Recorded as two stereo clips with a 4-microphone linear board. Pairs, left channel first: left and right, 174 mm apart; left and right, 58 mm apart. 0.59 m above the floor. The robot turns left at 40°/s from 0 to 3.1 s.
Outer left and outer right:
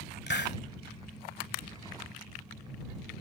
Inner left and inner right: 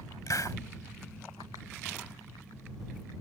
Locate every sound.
0.3 s a hiss: 80° left; by 0.6 s 85° left